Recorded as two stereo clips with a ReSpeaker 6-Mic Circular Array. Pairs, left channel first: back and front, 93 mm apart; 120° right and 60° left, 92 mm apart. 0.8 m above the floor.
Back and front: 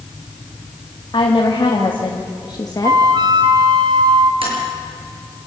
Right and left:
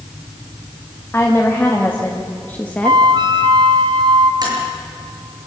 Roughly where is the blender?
No blender in this recording.